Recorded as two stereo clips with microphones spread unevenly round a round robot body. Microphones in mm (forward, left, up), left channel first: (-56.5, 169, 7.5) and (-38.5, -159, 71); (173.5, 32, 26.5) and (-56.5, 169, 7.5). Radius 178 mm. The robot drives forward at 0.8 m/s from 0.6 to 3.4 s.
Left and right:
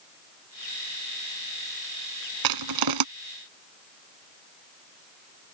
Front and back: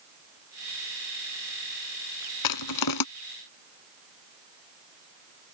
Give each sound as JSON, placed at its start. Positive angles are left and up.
{"t": 2.4, "sound": "crushing", "azimuth_deg": -55}